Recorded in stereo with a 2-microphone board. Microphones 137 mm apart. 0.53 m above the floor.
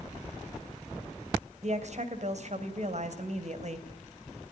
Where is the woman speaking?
55° right (ahead or behind), 3 m.